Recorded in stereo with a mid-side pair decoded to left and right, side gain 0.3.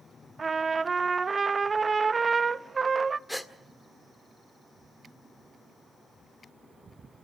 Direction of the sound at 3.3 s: 10° left.